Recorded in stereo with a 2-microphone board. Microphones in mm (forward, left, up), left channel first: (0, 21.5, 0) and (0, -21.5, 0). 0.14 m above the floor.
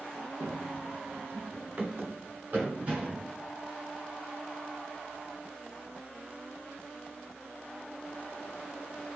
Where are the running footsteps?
75° right (ahead or behind), 0.7 m; by 3.3 s 35° right (ahead or behind), 3.5 m.